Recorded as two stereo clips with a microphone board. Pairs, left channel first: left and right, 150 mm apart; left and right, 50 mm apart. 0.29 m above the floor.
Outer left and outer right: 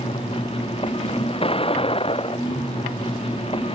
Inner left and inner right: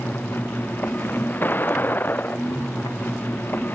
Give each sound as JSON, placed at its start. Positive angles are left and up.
{"t": 0.0, "sound": "a vehicle", "side_deg": 40}